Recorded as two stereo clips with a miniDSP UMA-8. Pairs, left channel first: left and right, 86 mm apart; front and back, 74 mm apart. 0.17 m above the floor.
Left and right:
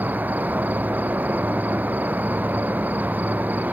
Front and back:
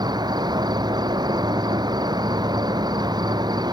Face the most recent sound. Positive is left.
turn(degrees=-160)